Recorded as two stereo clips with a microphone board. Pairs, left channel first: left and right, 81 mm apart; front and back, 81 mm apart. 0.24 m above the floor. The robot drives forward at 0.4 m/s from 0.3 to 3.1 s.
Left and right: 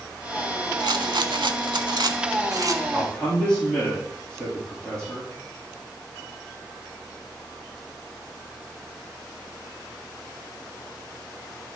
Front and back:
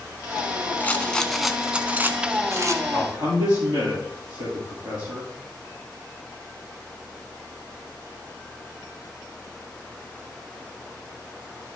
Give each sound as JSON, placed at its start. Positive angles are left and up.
{"t": 0.8, "sound": "a rattle", "azimuth_deg": -65, "distance_m": 0.6}
{"t": 2.9, "sound": "a man speaking", "azimuth_deg": 170, "distance_m": 4.5}